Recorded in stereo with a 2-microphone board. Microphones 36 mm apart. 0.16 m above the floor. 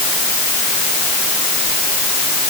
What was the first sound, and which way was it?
Only background noise.